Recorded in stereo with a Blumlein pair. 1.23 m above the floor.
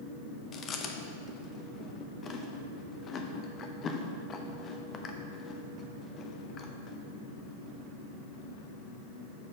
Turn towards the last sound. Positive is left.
turn(degrees=25)